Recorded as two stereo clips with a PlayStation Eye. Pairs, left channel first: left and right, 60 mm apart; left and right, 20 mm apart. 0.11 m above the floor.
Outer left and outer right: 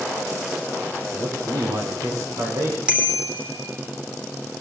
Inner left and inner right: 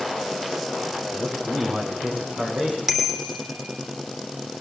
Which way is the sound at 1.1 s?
80° right.